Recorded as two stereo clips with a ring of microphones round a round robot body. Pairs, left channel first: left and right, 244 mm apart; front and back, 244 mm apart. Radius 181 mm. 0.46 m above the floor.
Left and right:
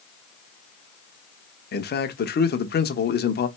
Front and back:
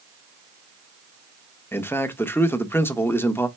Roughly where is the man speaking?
Left.